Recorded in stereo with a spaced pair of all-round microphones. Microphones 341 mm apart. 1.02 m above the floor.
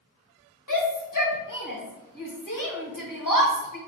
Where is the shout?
65° left (ahead or behind), 1.3 m.